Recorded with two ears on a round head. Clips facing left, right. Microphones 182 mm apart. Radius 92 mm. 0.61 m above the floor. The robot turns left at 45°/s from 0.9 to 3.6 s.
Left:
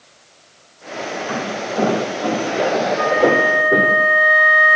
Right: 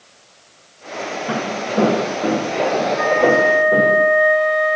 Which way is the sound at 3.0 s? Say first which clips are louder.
Right 2 dB; 35° left (ahead or behind).